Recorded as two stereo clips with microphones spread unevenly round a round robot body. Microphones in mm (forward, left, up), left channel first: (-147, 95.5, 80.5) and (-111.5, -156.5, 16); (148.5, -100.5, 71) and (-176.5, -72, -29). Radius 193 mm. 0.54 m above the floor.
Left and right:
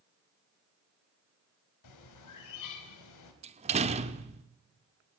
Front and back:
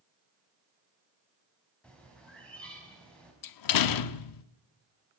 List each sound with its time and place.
1.8 s a bird: 85° left, 3.5 m
3.4 s a door slam: 30° right, 1.0 m